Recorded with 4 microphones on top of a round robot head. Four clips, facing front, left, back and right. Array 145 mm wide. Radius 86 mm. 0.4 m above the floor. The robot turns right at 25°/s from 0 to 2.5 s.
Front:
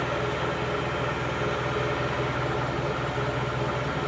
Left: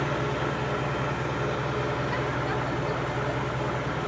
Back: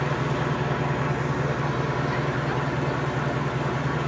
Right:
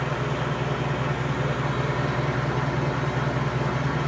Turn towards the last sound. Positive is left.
turn(degrees=-125)